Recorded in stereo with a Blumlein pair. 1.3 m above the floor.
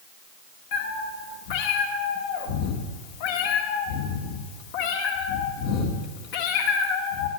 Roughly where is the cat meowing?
Ahead left.